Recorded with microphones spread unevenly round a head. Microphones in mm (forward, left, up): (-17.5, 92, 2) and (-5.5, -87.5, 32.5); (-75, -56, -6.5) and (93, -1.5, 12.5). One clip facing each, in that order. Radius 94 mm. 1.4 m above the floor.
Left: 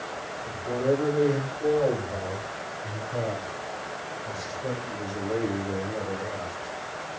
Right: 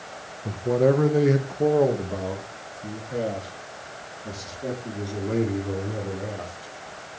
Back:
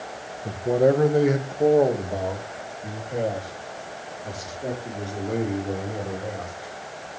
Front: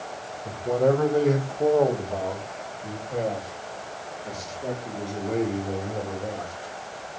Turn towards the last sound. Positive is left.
turn(degrees=-75)